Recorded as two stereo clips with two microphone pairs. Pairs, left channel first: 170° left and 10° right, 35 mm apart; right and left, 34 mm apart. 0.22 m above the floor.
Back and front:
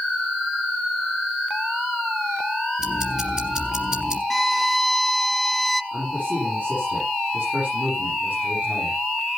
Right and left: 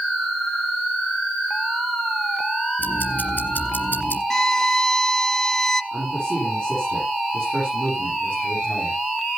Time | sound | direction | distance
2.8 | ticking | 75° right | 3 m
4.3 | a violin | 110° right | 0.5 m
5.9 | a man speaking | 35° left | 9 m